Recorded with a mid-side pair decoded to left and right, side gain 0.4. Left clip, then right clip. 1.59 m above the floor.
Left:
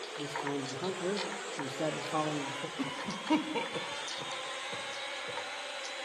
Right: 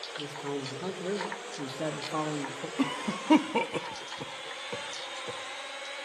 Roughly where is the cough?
Ahead right.